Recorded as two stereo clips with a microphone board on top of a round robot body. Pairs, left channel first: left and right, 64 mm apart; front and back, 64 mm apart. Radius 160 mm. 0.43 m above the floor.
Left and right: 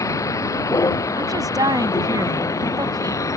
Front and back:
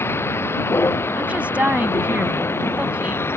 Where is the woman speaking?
110° right.